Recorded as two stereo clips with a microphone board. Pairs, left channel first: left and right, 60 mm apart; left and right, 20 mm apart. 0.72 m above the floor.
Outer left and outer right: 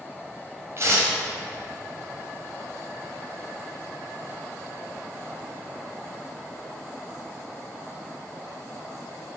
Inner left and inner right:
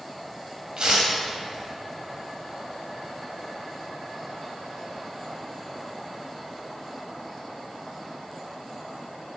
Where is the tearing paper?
45° right (ahead or behind), 3.5 m.